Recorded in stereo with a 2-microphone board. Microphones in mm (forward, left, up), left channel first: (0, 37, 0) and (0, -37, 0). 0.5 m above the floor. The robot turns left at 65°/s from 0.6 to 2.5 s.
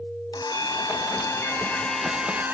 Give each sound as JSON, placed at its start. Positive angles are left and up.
{"t": 0.3, "sound": "a blender", "azimuth_deg": 95}